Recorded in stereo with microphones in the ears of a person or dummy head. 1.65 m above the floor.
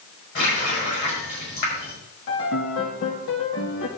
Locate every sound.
0.3 s a running tap: 60° left (ahead or behind), 6 m
2.3 s a piano: 60° left (ahead or behind), 1.9 m